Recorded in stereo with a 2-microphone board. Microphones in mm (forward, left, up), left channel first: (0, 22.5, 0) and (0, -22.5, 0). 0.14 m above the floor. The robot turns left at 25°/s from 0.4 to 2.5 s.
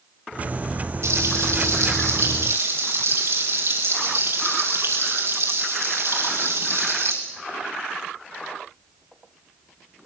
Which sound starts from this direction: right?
Frying, at 1.0 s.